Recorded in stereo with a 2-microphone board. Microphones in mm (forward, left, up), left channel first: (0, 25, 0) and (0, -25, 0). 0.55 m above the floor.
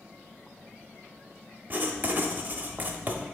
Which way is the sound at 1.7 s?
35° right (ahead or behind).